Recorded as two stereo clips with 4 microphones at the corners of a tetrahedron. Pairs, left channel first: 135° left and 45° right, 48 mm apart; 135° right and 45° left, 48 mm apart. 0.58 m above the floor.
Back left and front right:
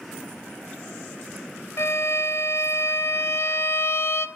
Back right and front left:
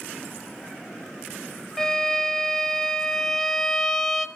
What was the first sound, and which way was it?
A violin, 145° left.